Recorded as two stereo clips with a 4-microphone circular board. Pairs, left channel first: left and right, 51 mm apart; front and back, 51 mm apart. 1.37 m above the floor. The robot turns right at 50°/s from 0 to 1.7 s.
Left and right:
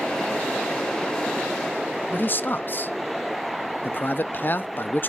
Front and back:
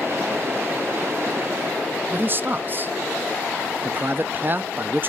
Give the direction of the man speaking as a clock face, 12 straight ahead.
7 o'clock.